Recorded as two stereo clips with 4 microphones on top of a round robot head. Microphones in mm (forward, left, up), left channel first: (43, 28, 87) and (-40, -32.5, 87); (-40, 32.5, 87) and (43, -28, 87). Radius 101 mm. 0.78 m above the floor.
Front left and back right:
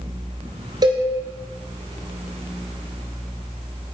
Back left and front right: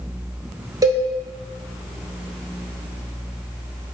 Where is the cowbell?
95° right, 2 m.